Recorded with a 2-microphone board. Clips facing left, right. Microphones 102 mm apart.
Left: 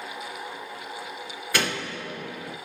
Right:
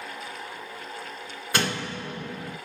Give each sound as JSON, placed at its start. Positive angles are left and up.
{"t": 1.5, "sound": "a door slam", "side_deg": -30, "distance_m": 1.6}